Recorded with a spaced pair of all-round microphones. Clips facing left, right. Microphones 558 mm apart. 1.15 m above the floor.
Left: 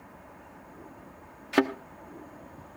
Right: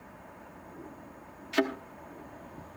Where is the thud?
70° left (ahead or behind), 1.2 m.